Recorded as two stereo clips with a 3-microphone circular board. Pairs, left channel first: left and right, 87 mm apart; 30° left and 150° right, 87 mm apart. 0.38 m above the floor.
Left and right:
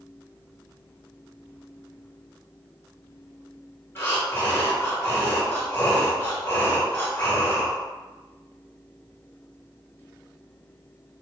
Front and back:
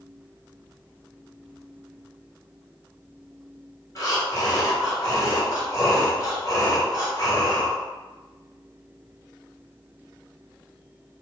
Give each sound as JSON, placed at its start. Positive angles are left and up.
{"t": 4.0, "sound": "breathing", "azimuth_deg": 40, "distance_m": 1.2}